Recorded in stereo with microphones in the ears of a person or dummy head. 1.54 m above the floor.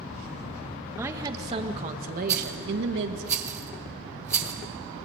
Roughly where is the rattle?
Centre.